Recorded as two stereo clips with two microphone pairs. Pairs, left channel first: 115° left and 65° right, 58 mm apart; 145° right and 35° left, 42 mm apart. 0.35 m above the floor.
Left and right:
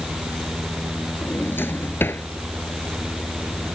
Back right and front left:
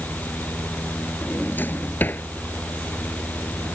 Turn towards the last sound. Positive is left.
turn(degrees=170)